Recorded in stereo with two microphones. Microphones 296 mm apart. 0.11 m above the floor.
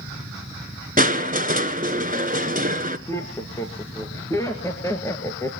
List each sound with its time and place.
1.0 s crushing: 30° right (ahead or behind), 1.1 m
3.1 s laughter: 10° left (ahead or behind), 2 m